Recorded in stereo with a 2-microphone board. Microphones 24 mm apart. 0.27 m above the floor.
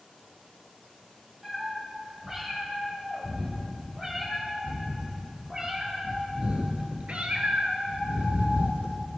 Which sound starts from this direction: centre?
A cat meowing, at 1.4 s.